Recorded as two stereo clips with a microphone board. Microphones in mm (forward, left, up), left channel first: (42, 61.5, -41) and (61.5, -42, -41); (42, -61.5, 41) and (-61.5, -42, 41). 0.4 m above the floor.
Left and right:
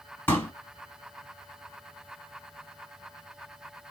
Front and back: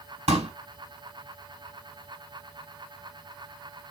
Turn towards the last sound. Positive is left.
turn(degrees=170)